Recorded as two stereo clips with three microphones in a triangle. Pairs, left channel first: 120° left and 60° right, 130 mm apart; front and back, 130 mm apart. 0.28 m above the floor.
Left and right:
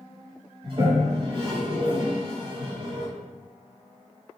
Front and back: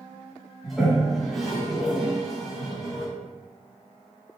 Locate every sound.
0.6 s a toilet flushing: 90° right, 1.2 m